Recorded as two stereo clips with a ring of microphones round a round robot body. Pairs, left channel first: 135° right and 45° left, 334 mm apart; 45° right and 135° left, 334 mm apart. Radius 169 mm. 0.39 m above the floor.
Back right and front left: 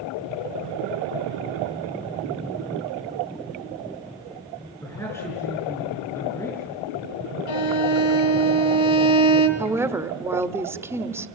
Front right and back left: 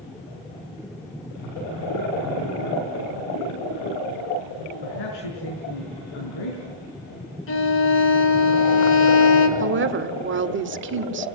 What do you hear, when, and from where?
4.8 s a man speaking: 50° right, 5.5 m
7.5 s a violin: 95° right, 2.5 m
9.6 s a woman speaking: 120° left, 1.3 m